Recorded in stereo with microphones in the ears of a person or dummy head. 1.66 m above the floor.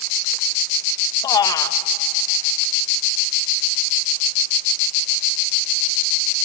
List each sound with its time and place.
1.2 s a man speaking: 25° left (ahead or behind), 1.6 m